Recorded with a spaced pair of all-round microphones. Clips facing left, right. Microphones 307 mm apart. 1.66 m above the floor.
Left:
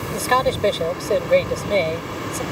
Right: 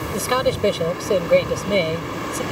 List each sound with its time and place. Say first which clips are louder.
0.1 s a man speaking: even; 15° right (ahead or behind)